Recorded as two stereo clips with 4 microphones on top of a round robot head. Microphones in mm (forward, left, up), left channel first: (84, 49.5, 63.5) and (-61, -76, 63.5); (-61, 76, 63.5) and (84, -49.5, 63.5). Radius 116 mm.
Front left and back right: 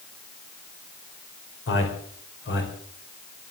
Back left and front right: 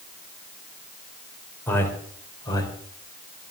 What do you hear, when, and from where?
1.7 s a man speaking: 60° left, 4 m; by 3.5 s 75° left, 4.5 m